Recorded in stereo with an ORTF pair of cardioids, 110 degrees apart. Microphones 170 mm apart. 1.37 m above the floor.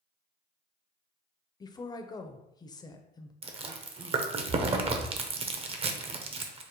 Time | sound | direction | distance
1.6 | a woman speaking | 20° left | 0.5 m
3.4 | chewing | 35° right | 0.6 m